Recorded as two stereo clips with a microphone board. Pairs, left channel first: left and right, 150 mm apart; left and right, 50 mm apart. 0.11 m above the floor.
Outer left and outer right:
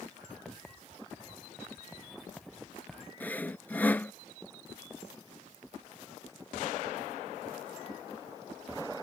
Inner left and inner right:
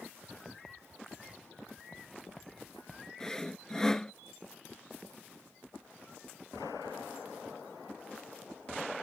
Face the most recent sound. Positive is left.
turn(degrees=15)  # may be behind; listen again after turning